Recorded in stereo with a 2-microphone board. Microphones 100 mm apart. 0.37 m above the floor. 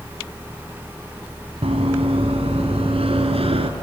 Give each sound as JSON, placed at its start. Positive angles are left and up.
{"t": 1.6, "sound": "running footsteps", "side_deg": -85, "distance_m": 2.5}